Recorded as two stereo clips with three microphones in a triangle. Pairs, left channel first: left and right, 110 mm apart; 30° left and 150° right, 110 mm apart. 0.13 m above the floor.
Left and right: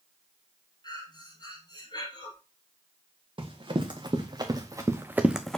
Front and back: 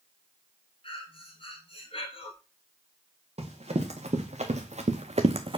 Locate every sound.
0.8 s breathing: 50° left, 1.3 m
3.4 s running footsteps: 130° right, 1.9 m; by 5.6 s 170° left, 0.6 m